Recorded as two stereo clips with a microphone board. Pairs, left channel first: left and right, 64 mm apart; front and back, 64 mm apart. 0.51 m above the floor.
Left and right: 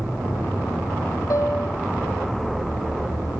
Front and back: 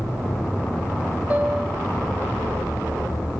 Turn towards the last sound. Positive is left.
turn(degrees=115)